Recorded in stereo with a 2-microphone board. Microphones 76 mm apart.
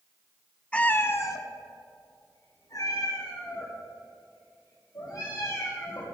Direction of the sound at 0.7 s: 15° left (ahead or behind).